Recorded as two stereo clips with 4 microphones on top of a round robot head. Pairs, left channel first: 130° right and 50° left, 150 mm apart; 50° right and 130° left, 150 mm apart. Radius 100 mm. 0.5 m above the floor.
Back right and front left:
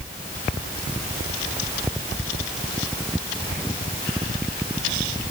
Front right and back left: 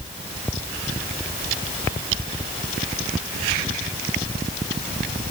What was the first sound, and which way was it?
Only background noise.